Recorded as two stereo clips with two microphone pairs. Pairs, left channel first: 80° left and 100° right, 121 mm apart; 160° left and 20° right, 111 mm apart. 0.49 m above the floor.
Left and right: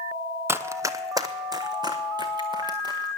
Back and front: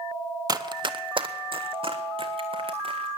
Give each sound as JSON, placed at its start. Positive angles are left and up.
{"t": 0.5, "sound": "running footsteps", "azimuth_deg": -40, "distance_m": 0.6}